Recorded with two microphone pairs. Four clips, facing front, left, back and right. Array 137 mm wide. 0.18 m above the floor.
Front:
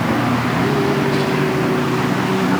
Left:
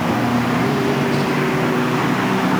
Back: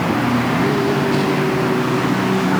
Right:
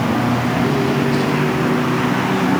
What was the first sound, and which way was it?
Only background noise.